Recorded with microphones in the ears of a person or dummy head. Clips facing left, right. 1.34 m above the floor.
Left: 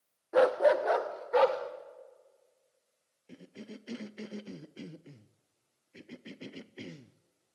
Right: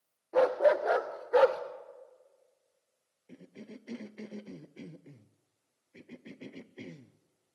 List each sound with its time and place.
0.3 s a dog barking: 15° left (ahead or behind), 0.9 m; by 1.6 s 15° right (ahead or behind), 1.6 m
3.3 s a cough: 10° left (ahead or behind), 0.5 m